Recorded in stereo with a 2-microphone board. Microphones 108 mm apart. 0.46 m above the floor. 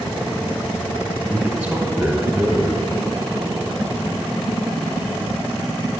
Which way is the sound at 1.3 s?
20° right (ahead or behind).